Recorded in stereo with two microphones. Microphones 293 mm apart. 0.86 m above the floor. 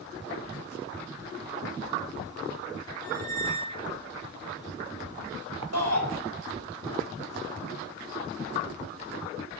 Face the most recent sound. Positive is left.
turn(degrees=-60)  # may be behind; listen again after turning